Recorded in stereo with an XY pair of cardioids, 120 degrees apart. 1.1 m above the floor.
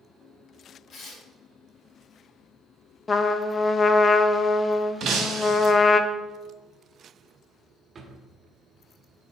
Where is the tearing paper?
50° left, 2.5 m.